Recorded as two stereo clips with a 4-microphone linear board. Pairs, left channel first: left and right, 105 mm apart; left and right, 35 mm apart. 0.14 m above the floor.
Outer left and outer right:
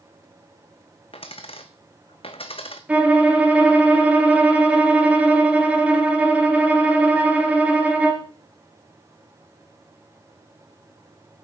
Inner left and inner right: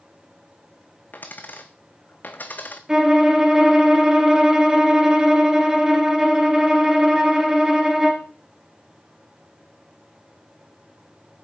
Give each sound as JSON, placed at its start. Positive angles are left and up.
{"t": 1.1, "sound": "a dropped coin", "side_deg": 70, "distance_m": 1.0}
{"t": 2.9, "sound": "a violin", "side_deg": -15, "distance_m": 2.0}